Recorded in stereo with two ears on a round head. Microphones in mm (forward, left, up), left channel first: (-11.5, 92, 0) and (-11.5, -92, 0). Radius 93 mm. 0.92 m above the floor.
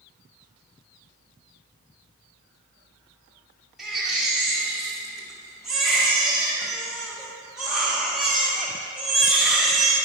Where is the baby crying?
Centre (ahead or behind), 1.6 m.